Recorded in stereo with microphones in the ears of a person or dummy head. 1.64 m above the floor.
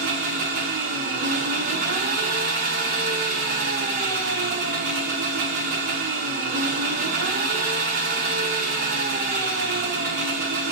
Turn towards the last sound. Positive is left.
turn(degrees=-45)  # may be behind; listen again after turning